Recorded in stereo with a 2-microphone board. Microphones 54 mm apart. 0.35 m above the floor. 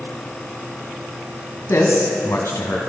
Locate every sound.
1.7 s a man speaking: 70° left (ahead or behind), 2.5 m